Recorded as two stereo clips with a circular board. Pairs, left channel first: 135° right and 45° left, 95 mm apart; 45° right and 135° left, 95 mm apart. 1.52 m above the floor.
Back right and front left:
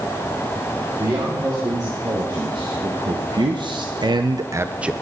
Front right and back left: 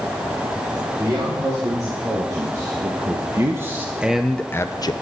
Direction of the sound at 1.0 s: 90° left.